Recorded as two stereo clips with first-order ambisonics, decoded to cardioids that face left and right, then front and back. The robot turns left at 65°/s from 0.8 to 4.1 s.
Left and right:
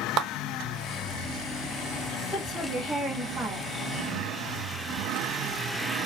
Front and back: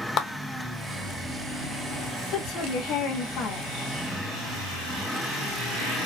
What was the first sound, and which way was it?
A clap, 50° right.